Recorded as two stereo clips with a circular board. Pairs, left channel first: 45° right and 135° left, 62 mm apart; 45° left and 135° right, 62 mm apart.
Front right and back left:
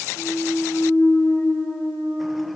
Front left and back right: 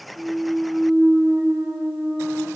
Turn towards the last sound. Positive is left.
turn(degrees=-90)